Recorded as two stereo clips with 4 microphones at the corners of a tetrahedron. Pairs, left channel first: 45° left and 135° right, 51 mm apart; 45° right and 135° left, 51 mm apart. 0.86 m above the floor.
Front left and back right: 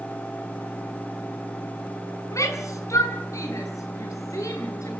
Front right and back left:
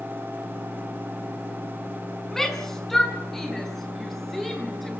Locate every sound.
2.3 s a shout: 40° left, 6.5 m